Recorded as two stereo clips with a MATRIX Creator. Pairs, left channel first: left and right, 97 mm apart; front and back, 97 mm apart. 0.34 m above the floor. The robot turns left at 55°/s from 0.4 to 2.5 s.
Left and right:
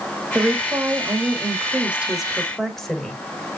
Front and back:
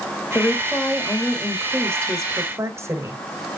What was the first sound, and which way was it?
A woman speaking, 70° right.